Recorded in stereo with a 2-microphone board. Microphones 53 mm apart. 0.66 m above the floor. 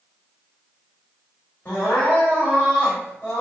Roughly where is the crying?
Left.